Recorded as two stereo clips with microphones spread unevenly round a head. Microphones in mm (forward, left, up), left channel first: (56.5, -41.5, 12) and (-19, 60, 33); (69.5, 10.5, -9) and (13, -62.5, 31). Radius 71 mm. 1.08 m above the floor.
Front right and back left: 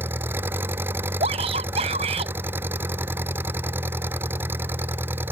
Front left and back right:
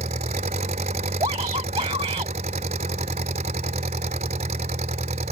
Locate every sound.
0.0 s an engine running: 160° right
1.2 s a shout: 175° left